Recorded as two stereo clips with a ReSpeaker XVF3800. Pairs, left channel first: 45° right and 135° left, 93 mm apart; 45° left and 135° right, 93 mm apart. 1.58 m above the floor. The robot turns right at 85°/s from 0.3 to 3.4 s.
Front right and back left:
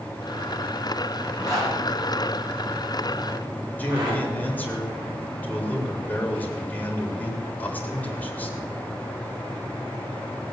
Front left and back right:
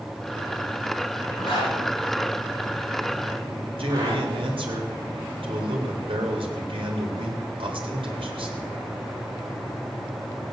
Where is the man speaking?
120° right, 3 m.